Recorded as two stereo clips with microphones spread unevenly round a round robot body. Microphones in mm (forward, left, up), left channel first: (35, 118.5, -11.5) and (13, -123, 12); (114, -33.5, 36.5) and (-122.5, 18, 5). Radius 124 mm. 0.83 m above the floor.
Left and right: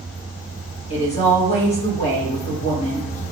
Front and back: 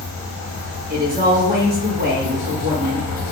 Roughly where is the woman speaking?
Behind left.